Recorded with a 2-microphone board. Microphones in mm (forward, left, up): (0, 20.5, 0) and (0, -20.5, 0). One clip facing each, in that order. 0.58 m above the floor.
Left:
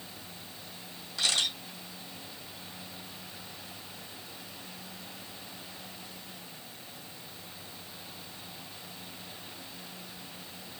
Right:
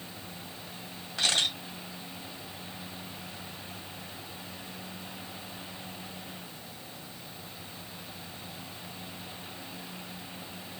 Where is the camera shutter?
40° right (ahead or behind), 2.5 m.